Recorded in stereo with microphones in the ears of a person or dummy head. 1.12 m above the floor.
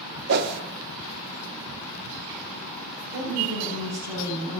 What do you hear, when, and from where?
0.3 s a whoosh: 60° right (ahead or behind), 0.8 m
3.1 s a woman speaking: 65° right (ahead or behind), 7 m